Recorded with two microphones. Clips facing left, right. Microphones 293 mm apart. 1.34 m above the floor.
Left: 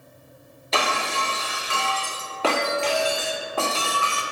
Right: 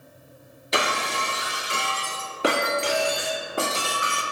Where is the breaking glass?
20° right (ahead or behind), 0.8 m.